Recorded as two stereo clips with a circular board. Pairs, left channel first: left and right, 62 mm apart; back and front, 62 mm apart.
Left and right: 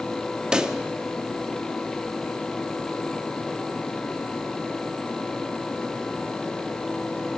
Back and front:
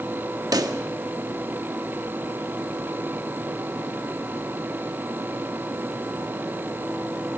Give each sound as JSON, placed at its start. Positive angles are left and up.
{"t": 0.5, "sound": "a pop", "azimuth_deg": -10, "distance_m": 1.0}